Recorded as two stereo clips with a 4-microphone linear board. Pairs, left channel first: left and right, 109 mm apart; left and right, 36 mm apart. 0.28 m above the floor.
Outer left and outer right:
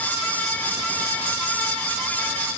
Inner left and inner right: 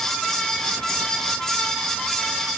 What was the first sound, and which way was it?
Only background noise.